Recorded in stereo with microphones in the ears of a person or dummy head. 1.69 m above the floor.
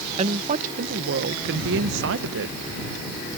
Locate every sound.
0.2 s a woman speaking: 35° right (ahead or behind); by 2.6 s 70° right (ahead or behind)